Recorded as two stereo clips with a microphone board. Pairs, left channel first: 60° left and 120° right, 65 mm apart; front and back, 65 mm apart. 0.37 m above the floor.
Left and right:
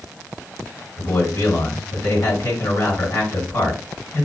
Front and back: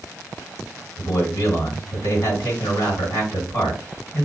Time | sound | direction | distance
1.0 | a man speaking | 30° left | 2.5 m